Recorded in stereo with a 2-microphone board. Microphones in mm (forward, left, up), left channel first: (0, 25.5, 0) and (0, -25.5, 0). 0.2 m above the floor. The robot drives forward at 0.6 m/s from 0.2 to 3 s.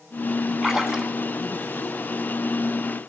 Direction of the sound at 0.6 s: 10° right (ahead or behind).